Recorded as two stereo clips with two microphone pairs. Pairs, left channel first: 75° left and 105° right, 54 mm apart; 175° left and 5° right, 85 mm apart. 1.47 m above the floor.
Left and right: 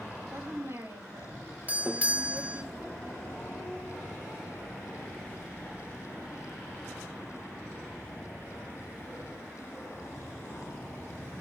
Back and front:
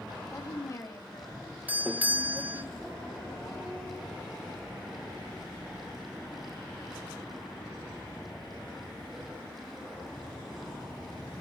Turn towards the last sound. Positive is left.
turn(degrees=-65)